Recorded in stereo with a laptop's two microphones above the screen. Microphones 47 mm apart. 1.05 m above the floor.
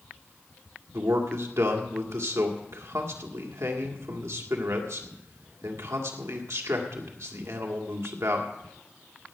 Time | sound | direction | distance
0.9 | a man speaking | 75° right (ahead or behind) | 1.9 m